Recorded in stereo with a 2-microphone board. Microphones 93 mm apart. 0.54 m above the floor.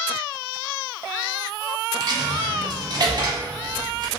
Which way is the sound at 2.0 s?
50° right (ahead or behind).